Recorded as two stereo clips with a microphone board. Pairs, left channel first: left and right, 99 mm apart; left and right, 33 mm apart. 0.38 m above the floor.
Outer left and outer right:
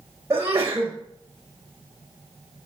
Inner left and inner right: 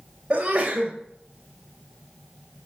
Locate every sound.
0.3 s a sneeze: 30° right (ahead or behind), 1.5 m